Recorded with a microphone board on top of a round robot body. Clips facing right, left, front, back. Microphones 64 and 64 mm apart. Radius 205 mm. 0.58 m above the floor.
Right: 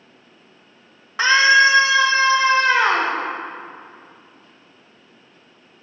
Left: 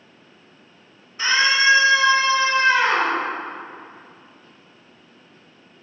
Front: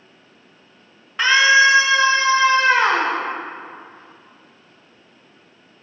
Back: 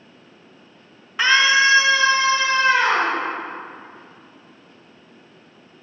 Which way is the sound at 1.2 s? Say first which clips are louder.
Right 5 dB, front 3 dB; 95° right.